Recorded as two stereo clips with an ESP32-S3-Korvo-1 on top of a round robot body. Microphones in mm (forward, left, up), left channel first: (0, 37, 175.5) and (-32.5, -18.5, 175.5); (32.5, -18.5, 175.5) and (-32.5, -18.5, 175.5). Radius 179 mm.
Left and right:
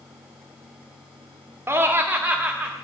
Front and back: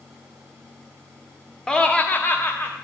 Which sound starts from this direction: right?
Laughter, at 1.7 s.